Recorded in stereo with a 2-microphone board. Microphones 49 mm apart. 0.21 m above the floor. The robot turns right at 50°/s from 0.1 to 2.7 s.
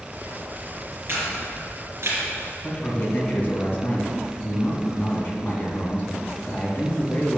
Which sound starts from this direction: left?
A man speaking, at 2.6 s.